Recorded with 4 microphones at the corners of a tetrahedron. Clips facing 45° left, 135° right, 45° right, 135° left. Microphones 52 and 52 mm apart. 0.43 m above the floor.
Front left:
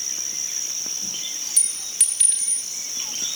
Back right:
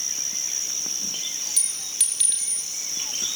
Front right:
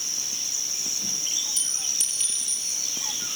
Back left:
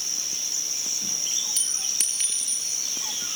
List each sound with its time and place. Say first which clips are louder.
1.6 s a clink: front left 1 dB, even; 120° left, 4.5 m